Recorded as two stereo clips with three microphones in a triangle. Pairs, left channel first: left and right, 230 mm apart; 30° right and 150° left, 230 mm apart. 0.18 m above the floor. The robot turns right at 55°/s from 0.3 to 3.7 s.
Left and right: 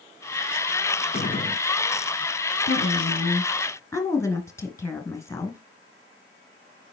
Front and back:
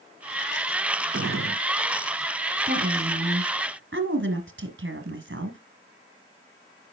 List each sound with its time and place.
1.1 s a gunshot: 130° left, 0.7 m; by 1.6 s 155° left, 0.7 m
2.7 s a woman speaking: 110° left, 1.9 m; by 5.6 s 165° left, 1.9 m